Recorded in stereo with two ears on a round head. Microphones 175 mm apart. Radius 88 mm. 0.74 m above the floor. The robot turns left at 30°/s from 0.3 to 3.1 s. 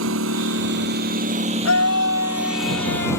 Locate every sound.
0.0 s a lawn mower: 110° right; by 3.2 s 165° left
1.6 s a scream: 100° left; by 3.2 s 55° left